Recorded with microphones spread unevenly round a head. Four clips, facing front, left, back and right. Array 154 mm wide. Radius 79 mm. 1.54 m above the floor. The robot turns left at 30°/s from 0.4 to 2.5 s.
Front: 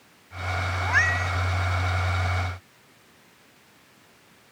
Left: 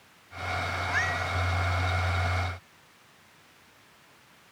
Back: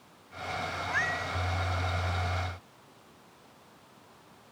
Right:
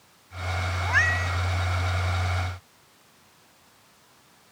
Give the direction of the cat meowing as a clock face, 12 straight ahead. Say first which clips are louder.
Right 7 dB, front 9 dB; 1 o'clock.